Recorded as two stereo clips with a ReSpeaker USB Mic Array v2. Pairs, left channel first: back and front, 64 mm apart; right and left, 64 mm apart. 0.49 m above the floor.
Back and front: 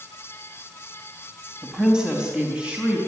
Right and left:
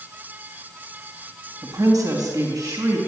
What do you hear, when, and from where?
1.6 s a woman speaking: 80° left, 3.5 m; by 3.0 s 70° left, 5.5 m